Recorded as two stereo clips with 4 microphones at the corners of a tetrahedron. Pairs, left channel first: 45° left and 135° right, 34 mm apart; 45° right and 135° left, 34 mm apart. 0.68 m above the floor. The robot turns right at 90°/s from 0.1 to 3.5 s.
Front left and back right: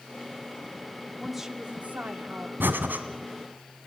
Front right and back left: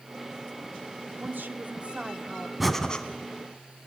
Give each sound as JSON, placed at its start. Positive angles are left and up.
{"t": 1.2, "sound": "a woman speaking", "azimuth_deg": 125, "distance_m": 1.4}
{"t": 2.6, "sound": "breathing", "azimuth_deg": -140, "distance_m": 1.7}